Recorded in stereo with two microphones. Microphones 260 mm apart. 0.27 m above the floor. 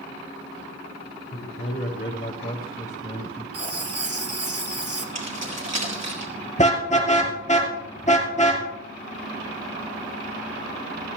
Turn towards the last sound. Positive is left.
turn(degrees=25)  # may be behind; listen again after turning